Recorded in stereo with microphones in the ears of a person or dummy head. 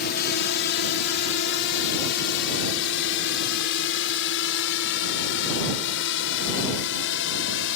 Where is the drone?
55° left (ahead or behind); by 7.8 s 70° left (ahead or behind).